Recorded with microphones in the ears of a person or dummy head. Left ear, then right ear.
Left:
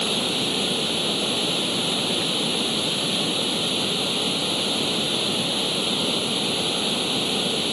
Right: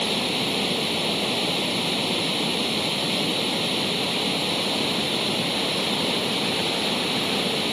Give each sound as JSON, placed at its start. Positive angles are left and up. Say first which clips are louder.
{"t": 0.0, "sound": "running water", "louder": "left 1 dB", "side_deg": -15}